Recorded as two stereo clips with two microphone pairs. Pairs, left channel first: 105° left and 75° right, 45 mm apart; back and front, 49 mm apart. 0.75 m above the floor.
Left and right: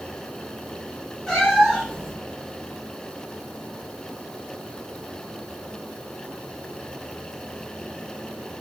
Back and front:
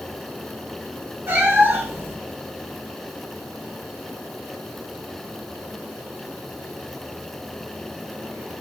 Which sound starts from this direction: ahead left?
A cat meowing, at 1.3 s.